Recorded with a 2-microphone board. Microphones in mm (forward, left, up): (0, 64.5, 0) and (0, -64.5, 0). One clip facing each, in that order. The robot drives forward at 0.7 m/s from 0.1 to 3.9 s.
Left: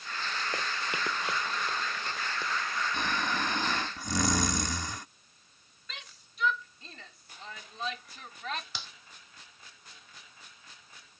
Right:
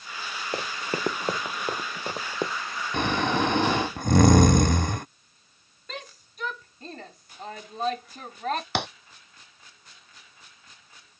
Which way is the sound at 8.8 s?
70° right (ahead or behind).